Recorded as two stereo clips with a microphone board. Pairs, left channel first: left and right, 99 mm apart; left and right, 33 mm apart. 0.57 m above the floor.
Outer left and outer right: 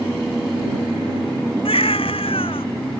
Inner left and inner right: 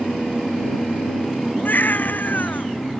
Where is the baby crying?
65° left (ahead or behind).